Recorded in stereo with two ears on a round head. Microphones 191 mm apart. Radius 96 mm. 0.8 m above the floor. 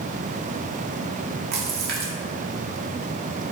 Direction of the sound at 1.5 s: 50° right (ahead or behind).